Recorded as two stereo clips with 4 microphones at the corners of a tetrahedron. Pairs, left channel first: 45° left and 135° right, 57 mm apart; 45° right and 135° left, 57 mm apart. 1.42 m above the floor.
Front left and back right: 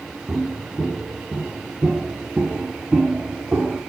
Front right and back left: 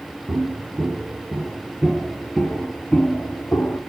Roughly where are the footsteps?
Behind left.